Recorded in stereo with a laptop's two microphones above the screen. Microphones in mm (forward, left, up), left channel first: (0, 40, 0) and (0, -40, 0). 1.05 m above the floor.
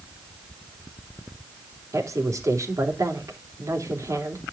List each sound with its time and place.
1.9 s a woman speaking: 45° right (ahead or behind), 3 m